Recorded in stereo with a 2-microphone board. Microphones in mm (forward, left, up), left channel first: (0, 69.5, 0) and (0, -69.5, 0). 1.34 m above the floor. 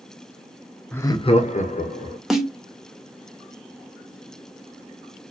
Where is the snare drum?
Centre (ahead or behind), 0.7 m.